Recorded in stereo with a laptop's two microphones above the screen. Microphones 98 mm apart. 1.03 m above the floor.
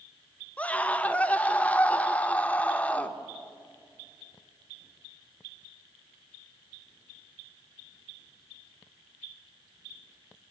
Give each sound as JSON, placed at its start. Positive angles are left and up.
{"t": 0.6, "sound": "a scream", "side_deg": 15, "distance_m": 1.1}